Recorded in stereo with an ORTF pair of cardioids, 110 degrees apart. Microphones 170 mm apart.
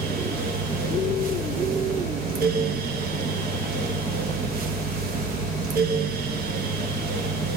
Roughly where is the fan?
Ahead right.